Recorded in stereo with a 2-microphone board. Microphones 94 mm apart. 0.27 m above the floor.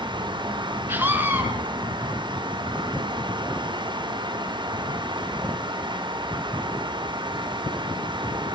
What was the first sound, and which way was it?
A scream, 25° right (ahead or behind).